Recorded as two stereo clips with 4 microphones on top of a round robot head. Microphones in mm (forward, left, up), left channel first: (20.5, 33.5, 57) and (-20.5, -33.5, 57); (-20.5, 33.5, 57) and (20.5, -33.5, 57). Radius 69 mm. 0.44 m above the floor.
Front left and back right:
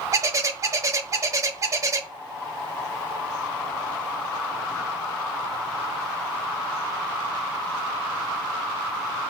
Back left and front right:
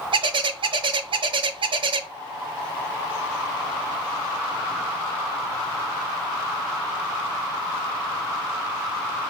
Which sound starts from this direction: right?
A bird, at 0.1 s.